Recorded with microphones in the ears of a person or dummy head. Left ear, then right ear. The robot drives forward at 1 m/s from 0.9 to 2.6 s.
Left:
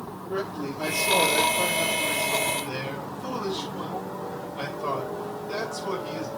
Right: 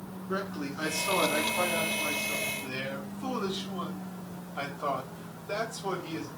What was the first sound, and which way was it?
A man speaking, 65° right (ahead or behind).